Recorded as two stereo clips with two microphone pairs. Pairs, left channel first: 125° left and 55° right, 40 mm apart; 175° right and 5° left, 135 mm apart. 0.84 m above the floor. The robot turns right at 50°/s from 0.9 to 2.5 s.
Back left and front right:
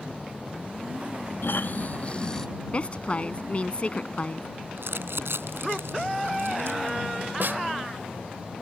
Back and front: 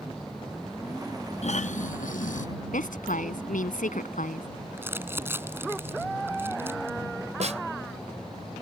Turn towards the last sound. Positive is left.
turn(degrees=-25)